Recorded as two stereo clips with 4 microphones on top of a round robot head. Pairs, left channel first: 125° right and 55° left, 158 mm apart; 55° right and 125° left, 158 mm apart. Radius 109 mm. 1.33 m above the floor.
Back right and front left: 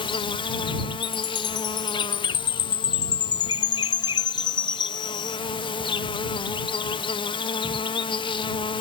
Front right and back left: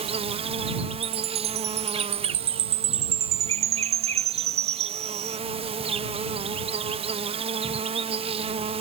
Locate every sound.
0.0 s an insect: 175° left
1.0 s a chime: 175° left